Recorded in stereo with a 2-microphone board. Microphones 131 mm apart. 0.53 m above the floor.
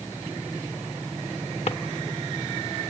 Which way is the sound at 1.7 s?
50° left (ahead or behind).